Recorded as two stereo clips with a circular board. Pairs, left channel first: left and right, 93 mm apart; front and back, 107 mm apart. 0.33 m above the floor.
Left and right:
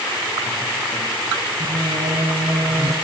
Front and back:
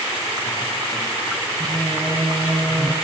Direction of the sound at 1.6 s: 105° right.